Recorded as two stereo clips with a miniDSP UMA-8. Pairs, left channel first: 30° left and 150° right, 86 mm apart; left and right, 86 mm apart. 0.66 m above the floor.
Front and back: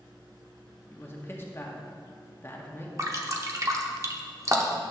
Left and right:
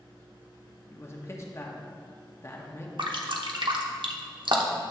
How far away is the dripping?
About 0.9 m.